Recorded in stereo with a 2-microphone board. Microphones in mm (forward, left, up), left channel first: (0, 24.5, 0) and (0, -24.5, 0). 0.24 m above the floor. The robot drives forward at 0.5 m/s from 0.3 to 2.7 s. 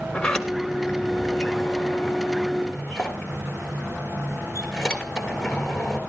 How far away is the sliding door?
About 1.5 m.